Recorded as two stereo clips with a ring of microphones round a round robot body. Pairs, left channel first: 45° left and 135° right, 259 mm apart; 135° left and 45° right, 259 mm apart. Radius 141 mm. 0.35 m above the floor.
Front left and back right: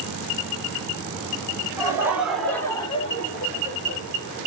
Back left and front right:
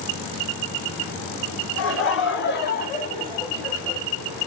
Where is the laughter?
150° left, 2 m; by 4.0 s 40° left, 1.8 m.